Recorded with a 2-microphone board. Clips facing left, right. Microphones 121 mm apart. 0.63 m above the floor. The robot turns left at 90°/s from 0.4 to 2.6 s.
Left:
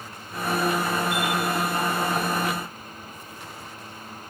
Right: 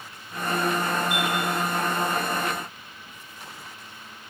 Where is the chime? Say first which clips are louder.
Left 1 dB; 80° right, 7 m; by 1.3 s 65° right (ahead or behind), 7 m.